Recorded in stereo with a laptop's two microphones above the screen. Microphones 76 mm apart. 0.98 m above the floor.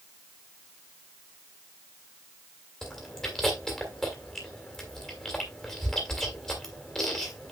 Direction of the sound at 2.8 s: 10° left (ahead or behind).